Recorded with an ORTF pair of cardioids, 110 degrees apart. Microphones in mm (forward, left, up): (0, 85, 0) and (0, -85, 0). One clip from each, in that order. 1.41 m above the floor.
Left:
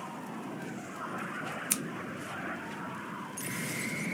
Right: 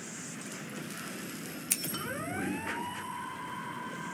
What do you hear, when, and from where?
1.7 s scissors: straight ahead, 0.5 m